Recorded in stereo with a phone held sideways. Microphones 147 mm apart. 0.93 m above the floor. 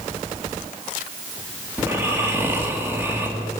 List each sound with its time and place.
1.8 s snoring: 15° right (ahead or behind), 2 m